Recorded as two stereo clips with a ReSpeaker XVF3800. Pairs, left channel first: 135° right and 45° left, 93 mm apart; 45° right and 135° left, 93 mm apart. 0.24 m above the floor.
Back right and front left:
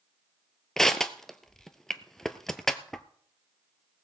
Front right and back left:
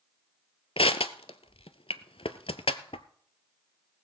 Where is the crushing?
50° right, 0.7 m.